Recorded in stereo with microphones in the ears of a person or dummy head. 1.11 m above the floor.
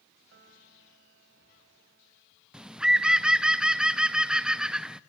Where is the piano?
60° right (ahead or behind), 6 m.